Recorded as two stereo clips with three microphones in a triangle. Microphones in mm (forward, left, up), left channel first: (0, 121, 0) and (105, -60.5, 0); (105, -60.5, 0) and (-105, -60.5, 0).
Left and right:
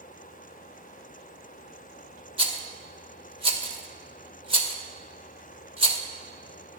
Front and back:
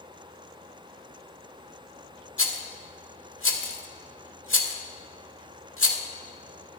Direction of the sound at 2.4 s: 5° left.